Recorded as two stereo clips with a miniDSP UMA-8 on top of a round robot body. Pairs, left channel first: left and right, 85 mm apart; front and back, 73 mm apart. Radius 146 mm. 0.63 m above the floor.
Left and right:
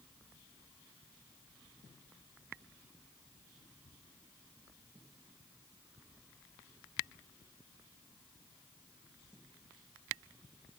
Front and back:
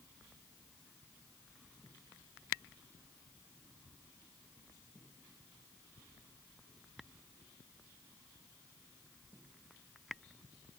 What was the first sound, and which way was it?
Only background noise.